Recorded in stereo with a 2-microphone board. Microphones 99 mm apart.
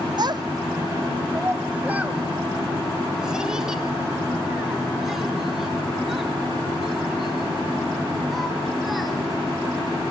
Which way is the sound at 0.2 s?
45° right (ahead or behind).